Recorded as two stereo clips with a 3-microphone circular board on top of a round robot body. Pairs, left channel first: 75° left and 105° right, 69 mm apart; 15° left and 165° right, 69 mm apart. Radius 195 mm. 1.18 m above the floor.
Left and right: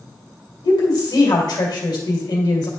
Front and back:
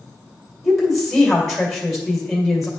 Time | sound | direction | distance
0.6 | a woman speaking | 105° left | 2 m